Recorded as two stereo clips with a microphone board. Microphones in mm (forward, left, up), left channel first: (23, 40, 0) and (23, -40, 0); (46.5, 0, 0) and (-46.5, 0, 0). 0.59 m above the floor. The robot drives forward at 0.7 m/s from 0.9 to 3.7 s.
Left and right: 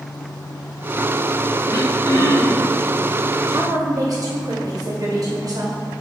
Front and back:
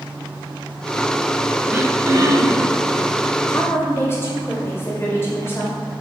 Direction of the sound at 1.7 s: 115° left.